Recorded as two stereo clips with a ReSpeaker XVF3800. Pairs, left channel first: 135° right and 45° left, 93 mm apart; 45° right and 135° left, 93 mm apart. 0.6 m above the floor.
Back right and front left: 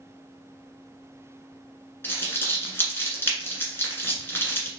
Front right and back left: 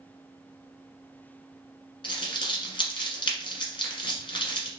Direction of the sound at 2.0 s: 70° right.